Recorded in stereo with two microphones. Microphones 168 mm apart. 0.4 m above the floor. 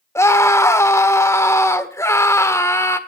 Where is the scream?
20° left (ahead or behind), 1.4 m.